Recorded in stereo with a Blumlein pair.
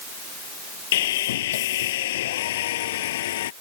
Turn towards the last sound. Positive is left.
turn(degrees=55)